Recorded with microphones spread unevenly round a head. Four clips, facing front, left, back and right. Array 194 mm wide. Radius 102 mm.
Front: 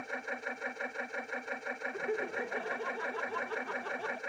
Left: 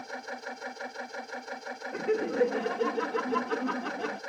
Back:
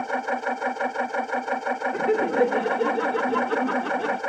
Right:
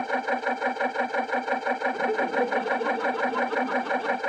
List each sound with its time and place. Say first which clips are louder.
0.0 s a machine running: right 13 dB, back 14 dB; 135° right
1.9 s laughter: right 3 dB, back 14 dB; 170° left